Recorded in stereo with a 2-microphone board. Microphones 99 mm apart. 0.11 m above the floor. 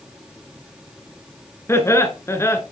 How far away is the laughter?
About 1.6 m.